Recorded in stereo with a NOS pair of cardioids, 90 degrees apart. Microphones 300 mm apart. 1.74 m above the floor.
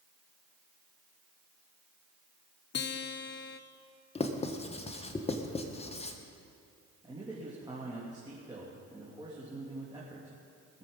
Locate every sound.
2.7 s a guitar: 35° left, 1.0 m
4.2 s writing: 20° left, 1.4 m
7.0 s a man speaking: 15° right, 3 m